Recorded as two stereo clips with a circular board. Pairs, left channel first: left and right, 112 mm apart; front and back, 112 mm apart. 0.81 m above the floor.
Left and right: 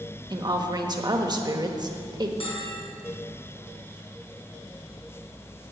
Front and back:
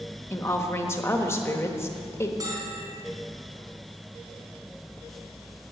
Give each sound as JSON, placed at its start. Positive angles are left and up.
{"t": 0.3, "sound": "a woman speaking", "azimuth_deg": -60, "distance_m": 1.3}
{"t": 2.4, "sound": "a bell", "azimuth_deg": 125, "distance_m": 3.5}